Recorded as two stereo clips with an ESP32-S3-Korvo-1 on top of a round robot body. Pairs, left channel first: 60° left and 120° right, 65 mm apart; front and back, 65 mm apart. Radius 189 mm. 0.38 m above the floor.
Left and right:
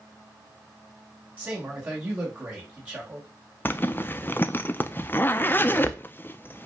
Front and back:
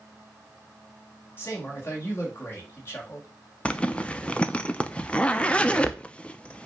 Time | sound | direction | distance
1.4 | a man speaking | 55° right | 3.5 m
3.6 | a zipper | 55° left | 0.9 m